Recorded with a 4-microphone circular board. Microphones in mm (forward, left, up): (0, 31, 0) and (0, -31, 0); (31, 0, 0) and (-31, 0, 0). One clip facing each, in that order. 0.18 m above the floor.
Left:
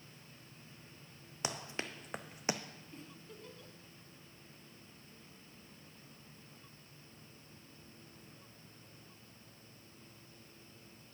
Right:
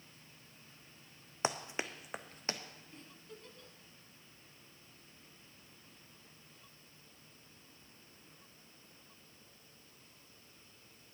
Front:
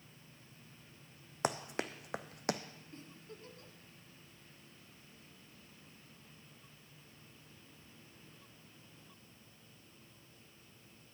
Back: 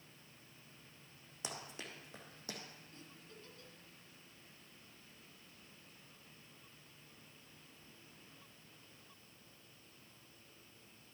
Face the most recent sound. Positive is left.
turn(degrees=5)